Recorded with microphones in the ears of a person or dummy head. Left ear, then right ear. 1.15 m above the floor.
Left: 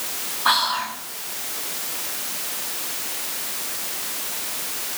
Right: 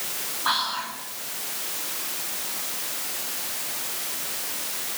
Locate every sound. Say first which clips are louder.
0.5 s whispering: left 6 dB; 20° left (ahead or behind), 1.8 m